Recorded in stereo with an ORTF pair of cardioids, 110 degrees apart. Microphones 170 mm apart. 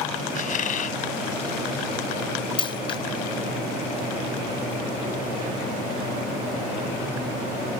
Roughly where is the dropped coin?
Ahead left.